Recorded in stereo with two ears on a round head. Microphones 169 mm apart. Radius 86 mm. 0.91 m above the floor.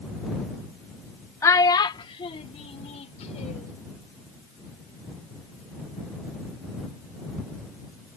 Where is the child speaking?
15° left (ahead or behind); by 3.8 s 40° left (ahead or behind).